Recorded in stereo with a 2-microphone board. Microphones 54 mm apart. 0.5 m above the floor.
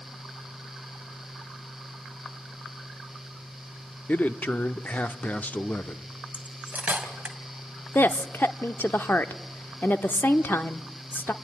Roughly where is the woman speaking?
Left.